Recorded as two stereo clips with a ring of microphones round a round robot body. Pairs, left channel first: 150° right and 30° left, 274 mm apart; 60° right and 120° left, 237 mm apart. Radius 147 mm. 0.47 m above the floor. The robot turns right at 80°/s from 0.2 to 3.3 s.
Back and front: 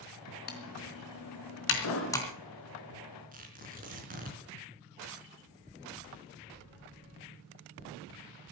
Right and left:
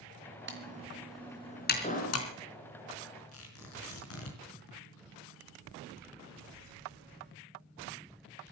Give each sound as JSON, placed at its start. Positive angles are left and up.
{"t": 0.5, "sound": "typing on a keyboard", "azimuth_deg": 155, "distance_m": 3.5}
{"t": 1.8, "sound": "an explosion", "azimuth_deg": -125, "distance_m": 5.0}
{"t": 3.3, "sound": "tearing paper", "azimuth_deg": -30, "distance_m": 4.0}